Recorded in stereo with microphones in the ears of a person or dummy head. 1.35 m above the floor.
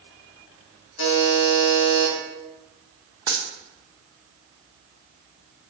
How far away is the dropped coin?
About 0.6 m.